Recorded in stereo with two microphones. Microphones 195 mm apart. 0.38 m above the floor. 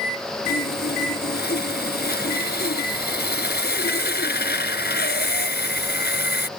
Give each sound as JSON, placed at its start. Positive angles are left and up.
{"t": 0.5, "sound": "sawing", "side_deg": 65}